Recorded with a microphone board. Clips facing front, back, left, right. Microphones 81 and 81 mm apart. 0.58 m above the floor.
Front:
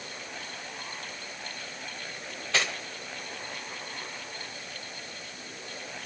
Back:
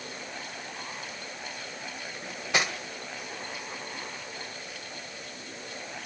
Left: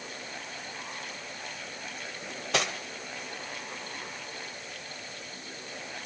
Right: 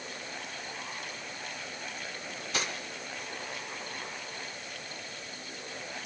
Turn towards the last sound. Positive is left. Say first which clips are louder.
# back 2 dB, left 6 dB
turn(degrees=105)